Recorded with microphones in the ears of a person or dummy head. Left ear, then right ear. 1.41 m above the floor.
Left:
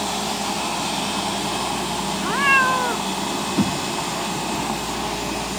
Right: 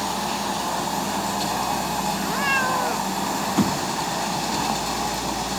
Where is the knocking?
35° right (ahead or behind).